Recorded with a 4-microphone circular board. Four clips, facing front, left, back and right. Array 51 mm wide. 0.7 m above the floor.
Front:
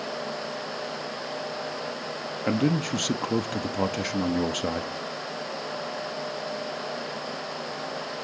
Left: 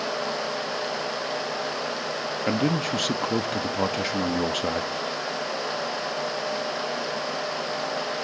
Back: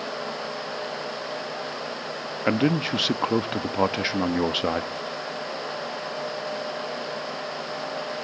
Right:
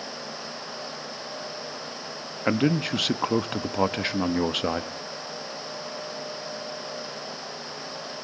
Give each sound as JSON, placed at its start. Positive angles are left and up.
{"t": 2.5, "sound": "a man speaking", "azimuth_deg": -150, "distance_m": 0.8}